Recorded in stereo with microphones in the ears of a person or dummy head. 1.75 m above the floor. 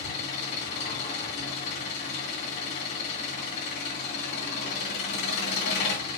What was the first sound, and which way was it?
An engine running, 50° left (ahead or behind).